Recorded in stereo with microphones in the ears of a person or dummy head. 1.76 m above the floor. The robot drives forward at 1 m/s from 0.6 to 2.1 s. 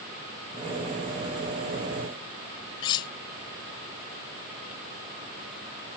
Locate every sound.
2.8 s cutlery clinking: 20° left (ahead or behind)